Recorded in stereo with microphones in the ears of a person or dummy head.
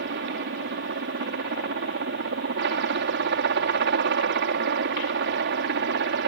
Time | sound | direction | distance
0.0 | a helicopter | 55° right (ahead or behind) | ?